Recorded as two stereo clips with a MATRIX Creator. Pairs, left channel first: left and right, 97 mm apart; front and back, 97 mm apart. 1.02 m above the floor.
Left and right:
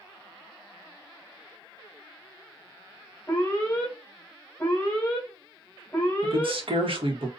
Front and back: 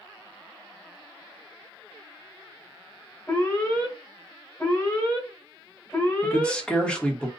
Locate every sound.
3.3 s an alarm: 35° left, 1.3 m
6.2 s a man speaking: 80° right, 1.1 m